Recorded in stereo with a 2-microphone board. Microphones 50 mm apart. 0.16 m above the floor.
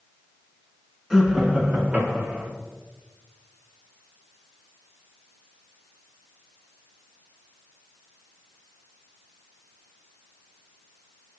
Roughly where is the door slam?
I don't hear a door slam.